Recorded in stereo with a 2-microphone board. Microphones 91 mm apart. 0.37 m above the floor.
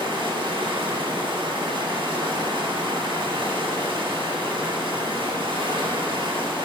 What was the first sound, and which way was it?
Running water, 70° right (ahead or behind).